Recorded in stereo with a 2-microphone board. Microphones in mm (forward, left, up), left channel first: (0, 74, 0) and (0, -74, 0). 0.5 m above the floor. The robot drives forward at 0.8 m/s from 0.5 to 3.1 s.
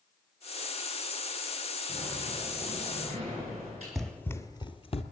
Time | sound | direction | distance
1.9 | a sliding door | 50° right (ahead or behind) | 6.5 m
4.0 | running footsteps | centre (ahead or behind) | 0.7 m